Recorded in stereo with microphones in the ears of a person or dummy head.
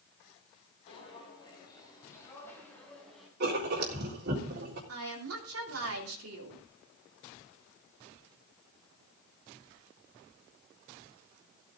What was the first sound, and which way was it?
Footsteps, 35° left (ahead or behind).